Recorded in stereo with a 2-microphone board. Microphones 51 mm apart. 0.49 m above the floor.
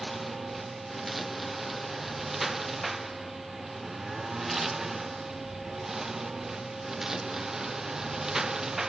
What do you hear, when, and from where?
0.0 s a lawn mower: 5° right (ahead or behind); by 8.9 s 15° right (ahead or behind)